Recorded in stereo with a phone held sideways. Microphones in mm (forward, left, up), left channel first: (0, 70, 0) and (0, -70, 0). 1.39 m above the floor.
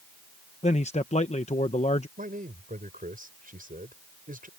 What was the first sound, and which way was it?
A man speaking, 55° left (ahead or behind).